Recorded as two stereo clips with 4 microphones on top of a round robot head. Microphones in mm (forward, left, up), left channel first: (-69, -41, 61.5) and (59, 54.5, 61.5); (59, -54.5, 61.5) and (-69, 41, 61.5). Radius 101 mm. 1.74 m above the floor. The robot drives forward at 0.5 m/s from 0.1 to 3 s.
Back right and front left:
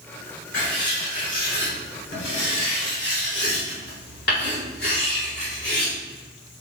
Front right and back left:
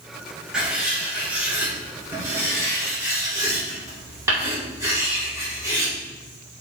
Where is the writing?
135° right, 3 m; by 5.9 s 145° right, 4 m.